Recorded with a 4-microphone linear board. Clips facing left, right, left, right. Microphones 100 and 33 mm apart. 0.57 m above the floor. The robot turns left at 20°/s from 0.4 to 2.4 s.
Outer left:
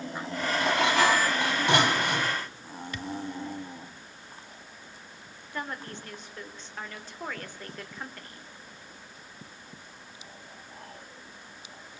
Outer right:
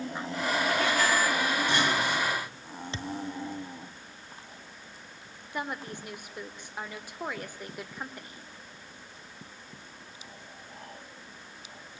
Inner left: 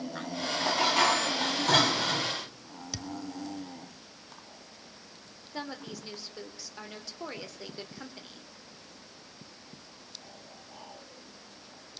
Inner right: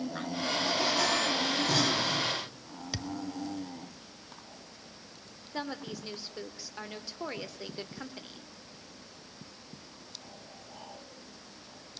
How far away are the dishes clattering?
About 3.5 m.